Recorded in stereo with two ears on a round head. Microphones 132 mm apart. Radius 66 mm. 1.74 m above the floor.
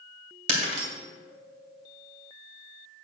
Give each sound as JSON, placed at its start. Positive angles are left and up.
{"t": 0.5, "sound": "breaking glass", "side_deg": -50, "distance_m": 2.5}